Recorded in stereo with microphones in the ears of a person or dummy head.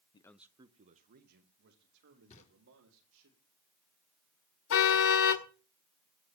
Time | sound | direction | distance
0.1 | a man speaking | 25° left (ahead or behind) | 0.7 m
2.3 | knocking | 35° left (ahead or behind) | 3.5 m
4.7 | a car horn | 55° left (ahead or behind) | 2 m